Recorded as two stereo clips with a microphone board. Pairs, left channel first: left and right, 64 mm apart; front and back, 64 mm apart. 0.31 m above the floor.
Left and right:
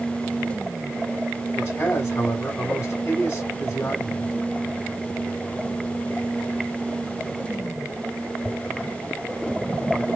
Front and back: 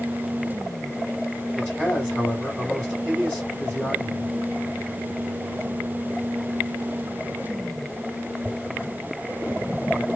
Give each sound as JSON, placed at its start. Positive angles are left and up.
{"t": 1.6, "sound": "a man speaking", "azimuth_deg": 85, "distance_m": 2.0}